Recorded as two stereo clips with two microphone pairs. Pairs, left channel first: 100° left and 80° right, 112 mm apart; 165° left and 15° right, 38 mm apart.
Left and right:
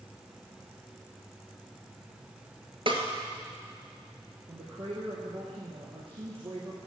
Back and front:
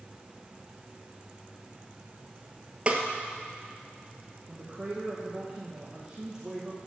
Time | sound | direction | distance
2.9 | a snare drum | 70° right | 1.7 m
4.5 | a woman speaking | 85° right | 2.5 m